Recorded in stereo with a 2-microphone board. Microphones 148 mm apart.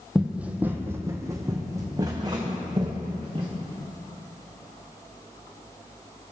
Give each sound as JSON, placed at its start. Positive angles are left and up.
{"t": 0.1, "sound": "running footsteps", "side_deg": 0, "distance_m": 0.9}